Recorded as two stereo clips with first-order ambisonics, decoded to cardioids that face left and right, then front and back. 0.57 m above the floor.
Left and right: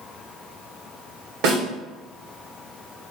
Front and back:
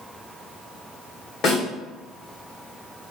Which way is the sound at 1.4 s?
65° right.